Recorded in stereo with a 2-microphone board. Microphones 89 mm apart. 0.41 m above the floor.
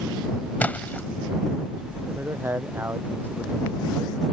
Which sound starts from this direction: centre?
A splash, at 0.6 s.